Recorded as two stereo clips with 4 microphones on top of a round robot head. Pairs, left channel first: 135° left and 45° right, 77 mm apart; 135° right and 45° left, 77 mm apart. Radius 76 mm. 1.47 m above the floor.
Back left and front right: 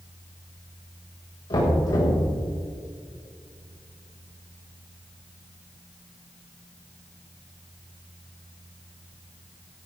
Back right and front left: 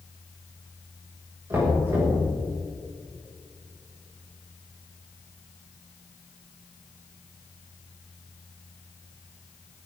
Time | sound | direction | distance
1.5 | knocking | 105° left | 6 m